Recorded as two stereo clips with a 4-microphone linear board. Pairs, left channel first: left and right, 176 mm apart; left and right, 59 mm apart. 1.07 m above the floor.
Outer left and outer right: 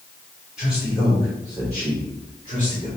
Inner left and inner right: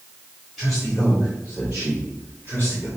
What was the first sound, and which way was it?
A man speaking, 5° right (ahead or behind).